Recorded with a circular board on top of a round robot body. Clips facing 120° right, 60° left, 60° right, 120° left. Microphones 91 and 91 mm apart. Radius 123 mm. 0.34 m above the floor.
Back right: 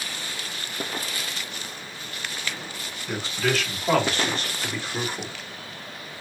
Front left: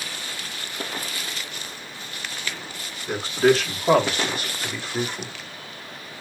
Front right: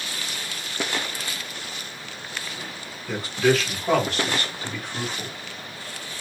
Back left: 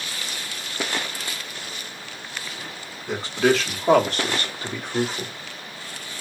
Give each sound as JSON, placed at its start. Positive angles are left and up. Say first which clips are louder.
{"t": 3.1, "sound": "a man speaking", "louder": "front left 7 dB, back left 1 dB", "azimuth_deg": 70, "distance_m": 1.8}